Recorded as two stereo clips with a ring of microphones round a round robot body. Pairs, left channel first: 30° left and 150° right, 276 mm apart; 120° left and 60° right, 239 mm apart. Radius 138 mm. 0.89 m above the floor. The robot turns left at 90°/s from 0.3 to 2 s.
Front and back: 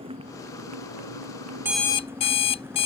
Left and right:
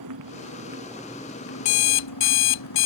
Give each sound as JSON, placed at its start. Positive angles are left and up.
{"t": 0.0, "sound": "a motorcycle", "azimuth_deg": -80}
{"t": 1.6, "sound": "an alarm clock", "azimuth_deg": 130}